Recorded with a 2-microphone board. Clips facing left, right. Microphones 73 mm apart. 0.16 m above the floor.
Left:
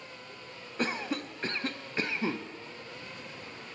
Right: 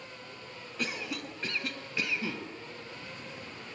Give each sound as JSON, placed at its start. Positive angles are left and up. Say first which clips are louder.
{"t": 0.8, "sound": "a cough", "louder": "left 4 dB", "side_deg": 35, "distance_m": 1.4}